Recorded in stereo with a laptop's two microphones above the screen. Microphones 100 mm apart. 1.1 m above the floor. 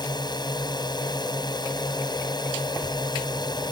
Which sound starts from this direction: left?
A drone, at 0.0 s.